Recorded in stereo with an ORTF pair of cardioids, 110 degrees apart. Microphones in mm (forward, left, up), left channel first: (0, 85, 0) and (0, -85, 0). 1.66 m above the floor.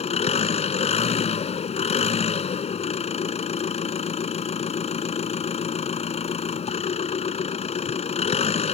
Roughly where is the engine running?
Ahead left.